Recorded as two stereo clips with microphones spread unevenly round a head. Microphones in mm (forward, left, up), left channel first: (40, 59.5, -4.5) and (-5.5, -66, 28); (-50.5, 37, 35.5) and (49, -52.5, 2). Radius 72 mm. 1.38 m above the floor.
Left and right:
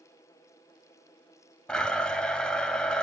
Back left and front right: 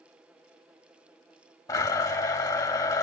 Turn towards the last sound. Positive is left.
turn(degrees=170)